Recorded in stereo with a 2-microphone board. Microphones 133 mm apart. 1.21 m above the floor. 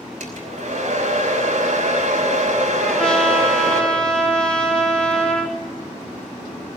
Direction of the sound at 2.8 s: 5° left (ahead or behind).